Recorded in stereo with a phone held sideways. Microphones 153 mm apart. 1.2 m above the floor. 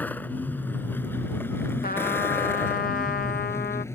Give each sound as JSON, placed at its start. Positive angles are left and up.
{"t": 0.0, "sound": "a vehicle", "side_deg": 10}
{"t": 1.8, "sound": "a trumpet", "side_deg": 75}